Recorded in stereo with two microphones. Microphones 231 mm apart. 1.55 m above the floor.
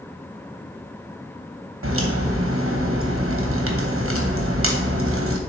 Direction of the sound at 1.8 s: 80° right.